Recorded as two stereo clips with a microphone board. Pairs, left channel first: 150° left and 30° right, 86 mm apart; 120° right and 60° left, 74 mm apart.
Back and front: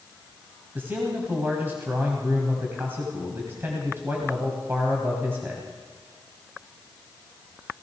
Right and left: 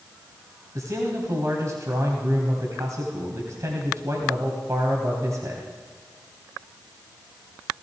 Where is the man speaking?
30° left, 2 m.